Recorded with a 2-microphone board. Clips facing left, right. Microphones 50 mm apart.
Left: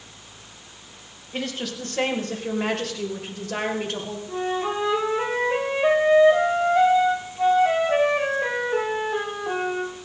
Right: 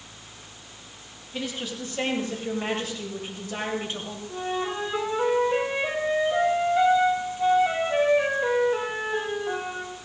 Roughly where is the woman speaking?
Left.